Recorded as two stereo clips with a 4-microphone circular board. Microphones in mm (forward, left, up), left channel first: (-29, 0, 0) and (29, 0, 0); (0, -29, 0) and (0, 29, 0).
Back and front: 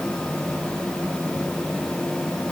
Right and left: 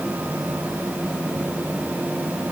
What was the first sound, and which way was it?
Only background noise.